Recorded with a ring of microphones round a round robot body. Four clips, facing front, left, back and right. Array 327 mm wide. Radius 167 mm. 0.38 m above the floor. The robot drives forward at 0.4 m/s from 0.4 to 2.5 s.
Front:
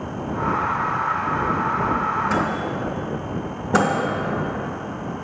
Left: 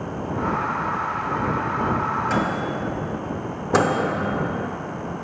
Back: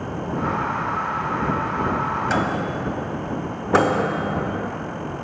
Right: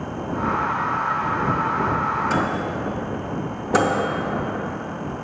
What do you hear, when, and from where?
2.3 s a microwave: straight behind, 1.7 m
3.7 s a microwave: 160° left, 0.8 m